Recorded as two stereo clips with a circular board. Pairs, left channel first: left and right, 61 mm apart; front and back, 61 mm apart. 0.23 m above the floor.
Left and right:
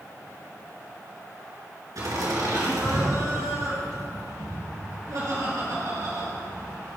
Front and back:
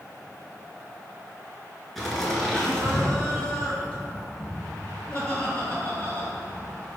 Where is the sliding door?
I don't hear a sliding door.